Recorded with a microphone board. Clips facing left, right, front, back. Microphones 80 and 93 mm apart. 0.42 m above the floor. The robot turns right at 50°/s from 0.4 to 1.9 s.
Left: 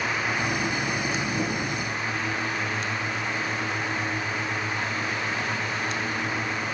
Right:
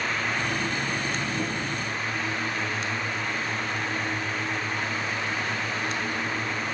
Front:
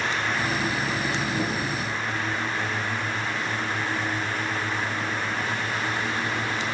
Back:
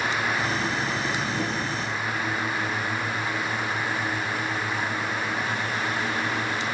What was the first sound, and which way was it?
Only background noise.